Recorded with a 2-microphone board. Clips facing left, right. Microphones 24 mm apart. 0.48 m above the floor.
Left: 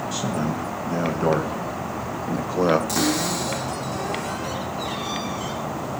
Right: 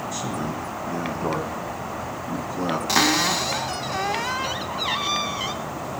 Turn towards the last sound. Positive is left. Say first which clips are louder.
# right 3 dB
turn(degrees=-40)  # may be behind; listen again after turning